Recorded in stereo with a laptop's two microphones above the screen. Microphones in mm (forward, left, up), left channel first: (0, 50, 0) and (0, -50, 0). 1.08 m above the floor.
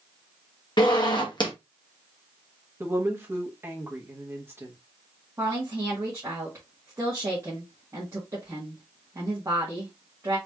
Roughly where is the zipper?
Left.